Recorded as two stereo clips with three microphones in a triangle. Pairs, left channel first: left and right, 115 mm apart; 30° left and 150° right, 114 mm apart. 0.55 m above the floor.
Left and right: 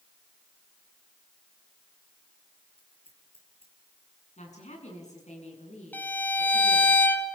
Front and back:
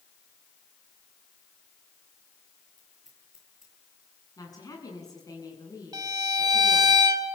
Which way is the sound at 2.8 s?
125° left.